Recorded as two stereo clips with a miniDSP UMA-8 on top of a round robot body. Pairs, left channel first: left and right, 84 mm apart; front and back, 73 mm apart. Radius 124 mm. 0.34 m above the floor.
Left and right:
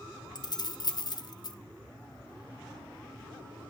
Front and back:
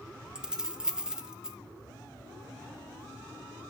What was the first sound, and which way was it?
Keys jangling, 100° left.